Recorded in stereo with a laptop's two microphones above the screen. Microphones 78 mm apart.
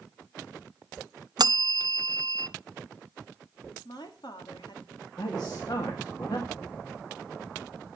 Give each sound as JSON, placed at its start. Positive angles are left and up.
{"t": 1.4, "sound": "a bell", "side_deg": -65, "distance_m": 0.6}
{"t": 3.9, "sound": "a woman speaking", "side_deg": 70, "distance_m": 1.7}
{"t": 5.2, "sound": "a man speaking", "side_deg": 60, "distance_m": 2.0}